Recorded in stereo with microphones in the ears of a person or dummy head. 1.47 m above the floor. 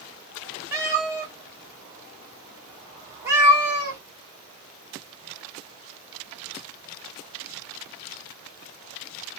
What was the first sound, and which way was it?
A cat meowing, 15° right (ahead or behind).